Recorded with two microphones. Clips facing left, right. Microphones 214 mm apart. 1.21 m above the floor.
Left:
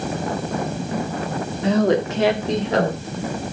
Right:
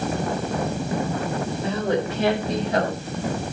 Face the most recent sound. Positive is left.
turn(degrees=80)